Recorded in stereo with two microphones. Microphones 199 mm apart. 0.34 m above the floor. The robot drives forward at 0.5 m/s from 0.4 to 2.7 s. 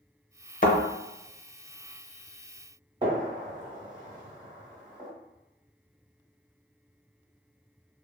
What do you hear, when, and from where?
0.6 s a thud: 45° left (ahead or behind), 0.7 m; by 0.8 s 50° left (ahead or behind), 0.7 m
3.0 s a gunshot: 20° right (ahead or behind), 1.3 m